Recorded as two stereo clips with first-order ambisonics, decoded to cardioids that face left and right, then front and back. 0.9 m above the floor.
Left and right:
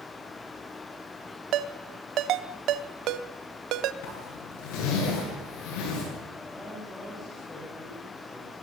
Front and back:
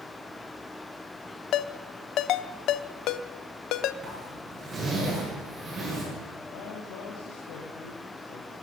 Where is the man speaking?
5° left, 5.5 m.